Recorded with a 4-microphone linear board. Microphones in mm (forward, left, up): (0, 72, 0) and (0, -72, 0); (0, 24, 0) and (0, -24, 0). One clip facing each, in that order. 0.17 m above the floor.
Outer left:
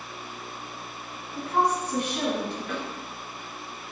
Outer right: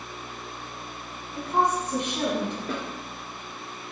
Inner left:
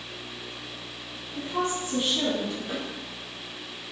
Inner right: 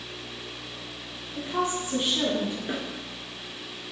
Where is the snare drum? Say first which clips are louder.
Outer right 1 dB, inner right 1 dB; 35° right (ahead or behind), 1.2 m.